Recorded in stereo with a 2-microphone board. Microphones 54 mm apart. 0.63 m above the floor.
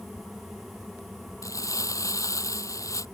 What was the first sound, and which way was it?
Crumpling, 80° left.